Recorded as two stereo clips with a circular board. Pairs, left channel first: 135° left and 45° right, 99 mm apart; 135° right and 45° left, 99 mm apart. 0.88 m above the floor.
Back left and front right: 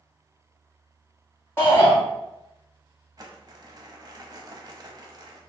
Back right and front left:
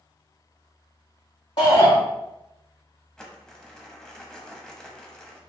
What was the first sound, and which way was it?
A shout, 160° right.